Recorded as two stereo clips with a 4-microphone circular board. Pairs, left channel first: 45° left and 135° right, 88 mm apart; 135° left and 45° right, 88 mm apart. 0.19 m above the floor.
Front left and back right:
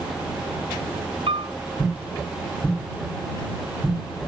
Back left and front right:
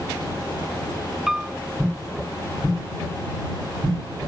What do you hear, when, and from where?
1.3 s a piano: 130° right